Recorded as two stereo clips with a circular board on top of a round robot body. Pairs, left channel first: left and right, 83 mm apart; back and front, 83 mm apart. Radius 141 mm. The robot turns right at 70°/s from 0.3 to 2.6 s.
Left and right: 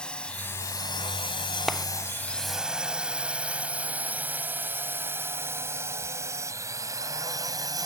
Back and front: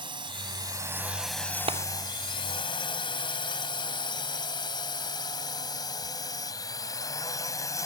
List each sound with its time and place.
0.0 s a drone: 10° left; by 7.9 s 130° right
1.7 s a clap: straight ahead; by 1.9 s 10° left